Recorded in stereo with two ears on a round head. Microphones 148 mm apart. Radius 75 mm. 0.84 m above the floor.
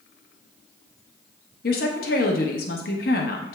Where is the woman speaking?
55° left (ahead or behind), 1.0 m.